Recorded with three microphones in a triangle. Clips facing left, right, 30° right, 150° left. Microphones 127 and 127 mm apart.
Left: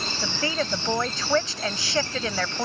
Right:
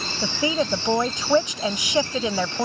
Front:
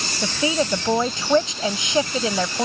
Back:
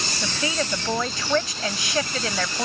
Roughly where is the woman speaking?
Ahead right.